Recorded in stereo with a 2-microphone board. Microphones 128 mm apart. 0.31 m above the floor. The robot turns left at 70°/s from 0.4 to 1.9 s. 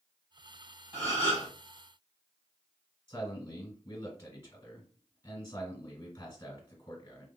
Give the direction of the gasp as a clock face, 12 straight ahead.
1 o'clock.